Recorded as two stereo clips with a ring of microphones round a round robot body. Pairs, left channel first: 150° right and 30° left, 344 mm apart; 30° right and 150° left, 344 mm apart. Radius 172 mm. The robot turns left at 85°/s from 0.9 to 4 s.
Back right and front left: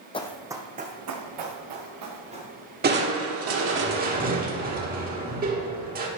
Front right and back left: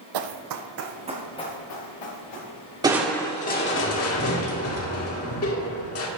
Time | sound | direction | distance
0.1 | running footsteps | 135° left | 1.0 m
2.8 | crushing | 80° left | 1.5 m